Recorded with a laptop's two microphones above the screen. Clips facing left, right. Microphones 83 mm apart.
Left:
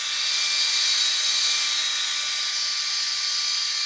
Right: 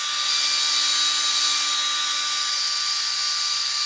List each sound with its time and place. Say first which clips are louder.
0.0 s a machine running: right 4 dB; 80° right, 1.3 m